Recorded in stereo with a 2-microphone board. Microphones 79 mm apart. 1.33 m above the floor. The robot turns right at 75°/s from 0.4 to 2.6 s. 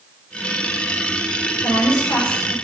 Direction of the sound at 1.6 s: 95° left.